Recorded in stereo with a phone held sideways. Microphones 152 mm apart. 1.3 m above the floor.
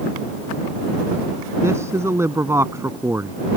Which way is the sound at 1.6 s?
15° right (ahead or behind).